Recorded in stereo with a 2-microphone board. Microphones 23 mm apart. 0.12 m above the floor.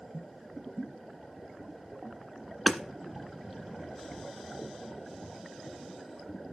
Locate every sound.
2.7 s hammering: 15° right (ahead or behind), 1.5 m